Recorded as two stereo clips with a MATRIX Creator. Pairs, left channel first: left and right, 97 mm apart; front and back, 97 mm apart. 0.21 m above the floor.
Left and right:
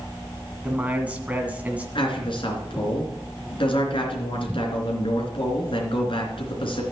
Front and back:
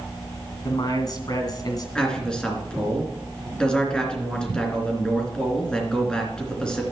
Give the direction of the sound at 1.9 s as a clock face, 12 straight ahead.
9 o'clock.